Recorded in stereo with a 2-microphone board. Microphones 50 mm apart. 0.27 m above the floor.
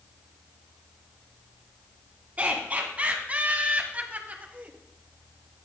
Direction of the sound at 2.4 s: 30° right (ahead or behind).